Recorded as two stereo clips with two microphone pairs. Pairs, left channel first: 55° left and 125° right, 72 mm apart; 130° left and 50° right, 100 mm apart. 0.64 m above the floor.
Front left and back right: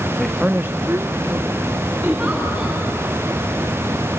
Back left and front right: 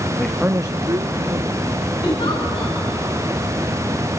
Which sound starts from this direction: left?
A man speaking, at 0.2 s.